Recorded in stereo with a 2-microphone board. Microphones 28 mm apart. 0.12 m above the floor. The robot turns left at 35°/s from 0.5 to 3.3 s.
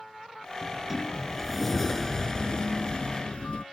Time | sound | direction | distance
0.6 | a sliding door | 160° right | ?